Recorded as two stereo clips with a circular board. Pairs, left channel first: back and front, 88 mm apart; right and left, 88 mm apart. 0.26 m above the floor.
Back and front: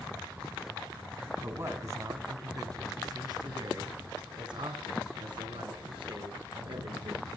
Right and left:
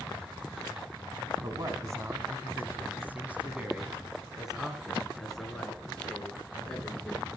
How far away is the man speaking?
About 1.9 m.